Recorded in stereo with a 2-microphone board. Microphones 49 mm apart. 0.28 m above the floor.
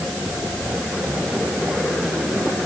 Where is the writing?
I don't hear writing.